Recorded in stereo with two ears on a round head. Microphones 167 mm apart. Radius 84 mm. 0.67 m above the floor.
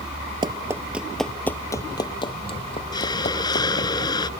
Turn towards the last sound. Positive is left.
turn(degrees=25)  # may be behind; listen again after turning